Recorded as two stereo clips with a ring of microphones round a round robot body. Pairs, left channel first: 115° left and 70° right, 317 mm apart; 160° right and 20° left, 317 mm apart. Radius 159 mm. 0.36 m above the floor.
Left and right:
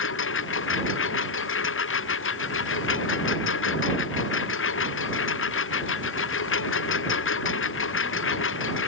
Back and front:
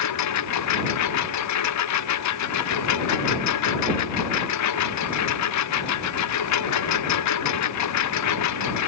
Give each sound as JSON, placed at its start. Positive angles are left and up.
{"t": 0.0, "sound": "a lawn mower", "azimuth_deg": 165}